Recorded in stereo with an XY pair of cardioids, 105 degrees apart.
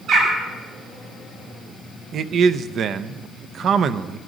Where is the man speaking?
60° right, 0.7 m.